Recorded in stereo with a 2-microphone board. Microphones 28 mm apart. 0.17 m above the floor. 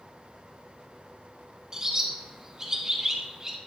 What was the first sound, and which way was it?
A bird, 25° right (ahead or behind).